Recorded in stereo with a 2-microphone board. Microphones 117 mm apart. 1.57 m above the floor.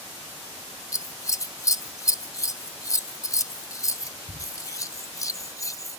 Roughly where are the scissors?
Left.